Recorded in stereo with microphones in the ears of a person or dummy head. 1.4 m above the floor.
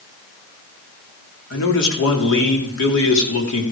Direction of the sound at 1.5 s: 65° left (ahead or behind).